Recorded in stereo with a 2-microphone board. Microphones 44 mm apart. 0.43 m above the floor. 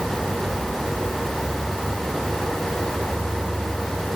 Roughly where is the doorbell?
I don't hear a doorbell.